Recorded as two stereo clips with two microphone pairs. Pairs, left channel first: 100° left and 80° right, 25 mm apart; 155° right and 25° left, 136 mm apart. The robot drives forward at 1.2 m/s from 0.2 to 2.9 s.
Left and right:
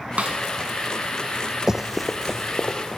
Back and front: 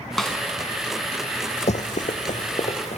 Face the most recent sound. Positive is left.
turn(degrees=165)